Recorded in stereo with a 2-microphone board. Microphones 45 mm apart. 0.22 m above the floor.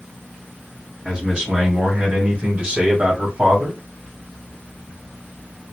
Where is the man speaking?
15° right (ahead or behind), 1.9 m; by 3.8 s 20° right (ahead or behind), 1.6 m.